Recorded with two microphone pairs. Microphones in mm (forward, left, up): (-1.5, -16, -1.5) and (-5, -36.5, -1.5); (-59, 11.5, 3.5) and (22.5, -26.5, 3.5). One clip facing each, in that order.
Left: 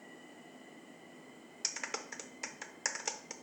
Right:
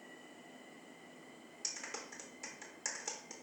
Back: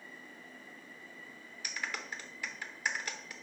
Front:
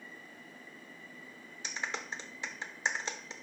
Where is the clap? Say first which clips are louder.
Left 5 dB, front 2 dB; 30° left, 0.6 m.